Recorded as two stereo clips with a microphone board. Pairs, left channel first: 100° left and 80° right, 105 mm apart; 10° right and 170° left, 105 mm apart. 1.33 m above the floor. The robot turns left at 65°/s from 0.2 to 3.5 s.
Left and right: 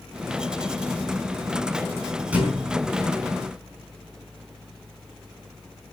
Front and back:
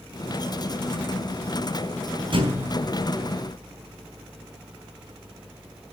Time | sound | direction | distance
2.3 | a thud | 155° right | 4.5 m